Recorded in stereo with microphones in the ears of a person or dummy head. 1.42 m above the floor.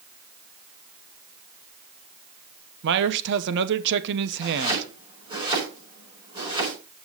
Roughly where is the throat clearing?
I don't hear throat clearing.